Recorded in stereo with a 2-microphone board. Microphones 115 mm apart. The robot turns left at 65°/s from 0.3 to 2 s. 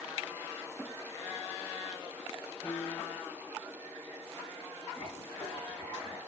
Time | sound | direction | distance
2.6 | a piano | 10° left (ahead or behind) | 3.5 m
5.0 | writing | 30° left (ahead or behind) | 5.5 m